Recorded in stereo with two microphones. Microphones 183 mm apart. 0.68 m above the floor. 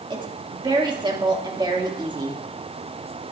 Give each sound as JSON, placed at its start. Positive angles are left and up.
{"t": 0.1, "sound": "a woman speaking", "side_deg": -25, "distance_m": 1.3}